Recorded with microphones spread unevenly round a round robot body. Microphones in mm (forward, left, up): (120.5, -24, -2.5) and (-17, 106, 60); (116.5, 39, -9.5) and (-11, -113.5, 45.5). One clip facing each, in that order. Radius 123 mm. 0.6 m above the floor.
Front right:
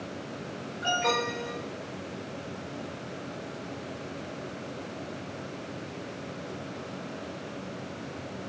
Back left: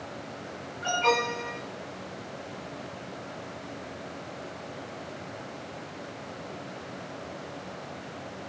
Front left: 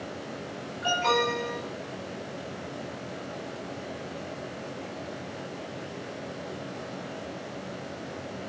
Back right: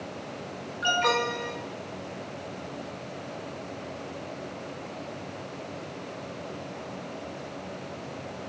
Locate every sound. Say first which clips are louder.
0.8 s an alarm: back left 2 dB, front left 1 dB; 110° right, 7 m